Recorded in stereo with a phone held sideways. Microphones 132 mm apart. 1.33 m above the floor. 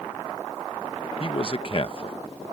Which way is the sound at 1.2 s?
45° left (ahead or behind).